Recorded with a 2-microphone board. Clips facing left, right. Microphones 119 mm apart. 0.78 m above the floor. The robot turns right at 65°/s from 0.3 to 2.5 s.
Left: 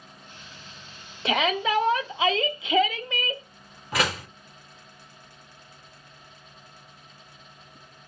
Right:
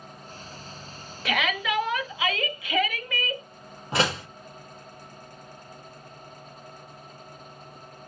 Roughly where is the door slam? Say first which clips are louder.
Right 1 dB; right.